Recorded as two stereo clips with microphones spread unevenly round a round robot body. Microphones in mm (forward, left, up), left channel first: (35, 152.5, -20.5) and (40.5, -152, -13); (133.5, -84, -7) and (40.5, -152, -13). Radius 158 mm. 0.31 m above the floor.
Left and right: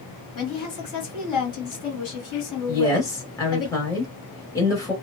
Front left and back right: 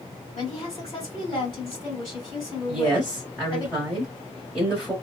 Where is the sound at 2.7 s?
155° left, 0.9 m.